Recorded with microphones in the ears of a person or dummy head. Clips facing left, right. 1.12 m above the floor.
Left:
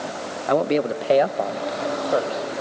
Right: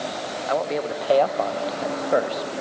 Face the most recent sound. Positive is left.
turn(degrees=-20)  # may be behind; listen again after turning